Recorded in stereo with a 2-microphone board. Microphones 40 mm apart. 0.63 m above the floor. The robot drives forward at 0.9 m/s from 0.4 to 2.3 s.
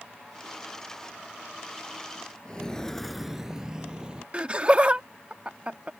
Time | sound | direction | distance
2.5 | footsteps | 20° left (ahead or behind) | ?
4.3 | laughter | 25° right (ahead or behind) | ?